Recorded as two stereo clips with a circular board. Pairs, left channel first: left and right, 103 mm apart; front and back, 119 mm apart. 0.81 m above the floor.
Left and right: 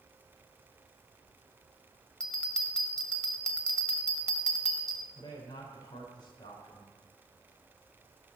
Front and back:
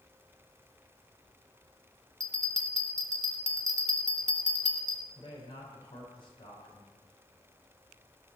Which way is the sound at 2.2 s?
170° left.